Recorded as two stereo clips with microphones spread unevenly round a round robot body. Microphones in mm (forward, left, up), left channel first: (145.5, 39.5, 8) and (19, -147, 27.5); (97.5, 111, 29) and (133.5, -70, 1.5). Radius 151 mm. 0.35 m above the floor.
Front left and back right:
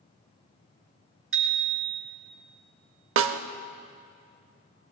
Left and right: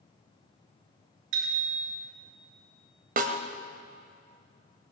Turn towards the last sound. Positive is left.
turn(degrees=-110)